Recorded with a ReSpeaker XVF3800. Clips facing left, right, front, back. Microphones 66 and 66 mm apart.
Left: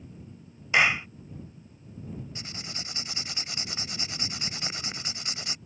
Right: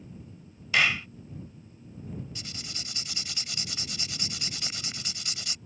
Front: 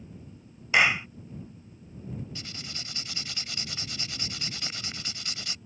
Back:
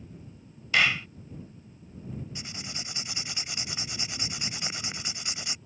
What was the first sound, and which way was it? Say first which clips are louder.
A clap: left 2 dB, front 2 dB; 45° left.